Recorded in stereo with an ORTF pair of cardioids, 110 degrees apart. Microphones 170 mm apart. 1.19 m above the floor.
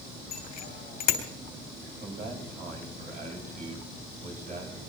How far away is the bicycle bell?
About 3 m.